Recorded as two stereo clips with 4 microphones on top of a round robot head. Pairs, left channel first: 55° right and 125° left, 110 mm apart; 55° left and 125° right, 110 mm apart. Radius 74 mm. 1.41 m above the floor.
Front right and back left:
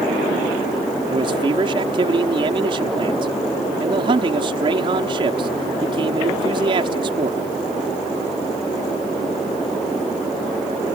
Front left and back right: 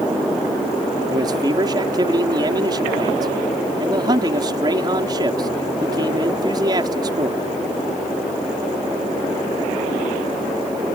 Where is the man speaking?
175° left.